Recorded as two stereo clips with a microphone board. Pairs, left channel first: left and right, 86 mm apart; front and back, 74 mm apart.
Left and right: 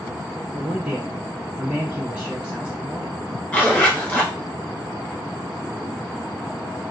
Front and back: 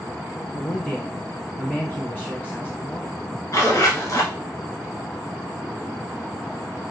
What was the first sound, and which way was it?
A man speaking, 40° right.